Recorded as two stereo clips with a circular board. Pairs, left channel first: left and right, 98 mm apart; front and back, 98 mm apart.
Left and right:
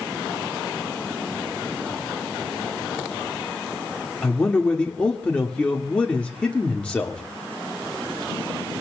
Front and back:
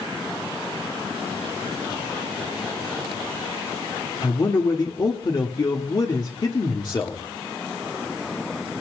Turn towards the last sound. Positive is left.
turn(degrees=15)